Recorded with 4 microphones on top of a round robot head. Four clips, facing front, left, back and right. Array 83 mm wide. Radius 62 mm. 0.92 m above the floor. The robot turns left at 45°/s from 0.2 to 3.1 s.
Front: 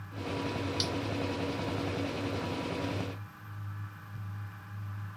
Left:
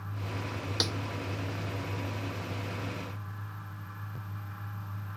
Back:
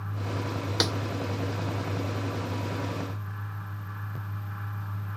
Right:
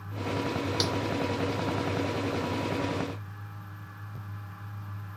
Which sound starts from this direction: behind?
A snare drum, at 0.8 s.